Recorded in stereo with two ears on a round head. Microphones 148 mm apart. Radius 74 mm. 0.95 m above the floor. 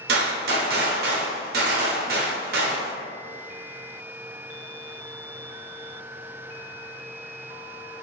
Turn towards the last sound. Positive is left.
turn(degrees=-60)  # may be behind; listen again after turning